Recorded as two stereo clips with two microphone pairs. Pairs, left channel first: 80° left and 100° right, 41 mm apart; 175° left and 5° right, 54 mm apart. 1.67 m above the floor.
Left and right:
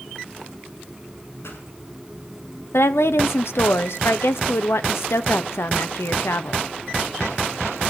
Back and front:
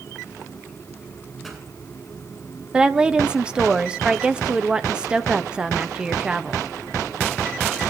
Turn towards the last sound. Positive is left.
turn(degrees=70)